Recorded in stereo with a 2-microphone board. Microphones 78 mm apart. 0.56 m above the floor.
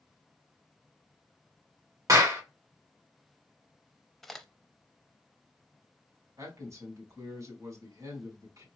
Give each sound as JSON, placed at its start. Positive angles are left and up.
{"t": 2.1, "sound": "a clap", "side_deg": -45, "distance_m": 1.3}
{"t": 4.2, "sound": "a crack", "side_deg": 5, "distance_m": 0.5}
{"t": 6.4, "sound": "a man speaking", "side_deg": -45, "distance_m": 2.5}